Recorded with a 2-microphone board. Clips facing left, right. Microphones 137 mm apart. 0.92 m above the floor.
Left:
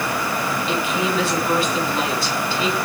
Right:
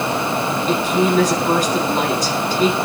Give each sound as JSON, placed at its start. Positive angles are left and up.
{"t": 0.7, "sound": "a woman speaking", "side_deg": -40, "distance_m": 8.5}